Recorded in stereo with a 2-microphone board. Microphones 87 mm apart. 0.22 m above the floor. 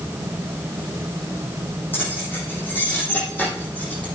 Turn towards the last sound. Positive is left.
turn(degrees=15)  # may be behind; listen again after turning